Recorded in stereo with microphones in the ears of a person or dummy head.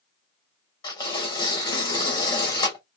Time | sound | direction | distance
0.8 | tearing paper | 15° left (ahead or behind) | 1.7 m